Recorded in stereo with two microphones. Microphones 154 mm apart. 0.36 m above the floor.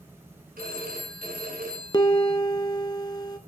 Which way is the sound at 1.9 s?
30° left (ahead or behind).